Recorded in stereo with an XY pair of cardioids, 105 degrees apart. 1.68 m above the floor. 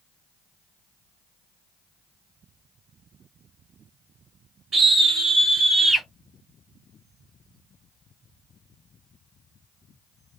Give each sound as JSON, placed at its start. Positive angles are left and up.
{"t": 4.7, "sound": "a scream", "azimuth_deg": -35, "distance_m": 0.9}